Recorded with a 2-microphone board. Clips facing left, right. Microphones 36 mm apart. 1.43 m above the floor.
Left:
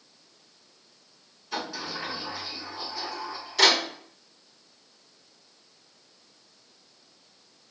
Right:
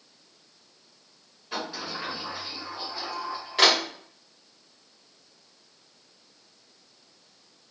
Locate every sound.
1.5 s a sliding door: 30° right (ahead or behind), 1.2 m